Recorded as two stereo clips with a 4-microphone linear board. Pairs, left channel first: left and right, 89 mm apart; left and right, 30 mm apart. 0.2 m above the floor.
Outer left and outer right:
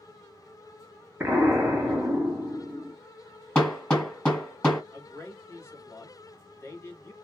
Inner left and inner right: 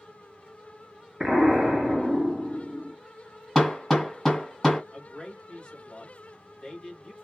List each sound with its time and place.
1.2 s an explosion: 20° right (ahead or behind), 1.1 m
3.5 s hammering: 15° left (ahead or behind), 1.9 m
4.9 s a man speaking: 30° left (ahead or behind), 1.4 m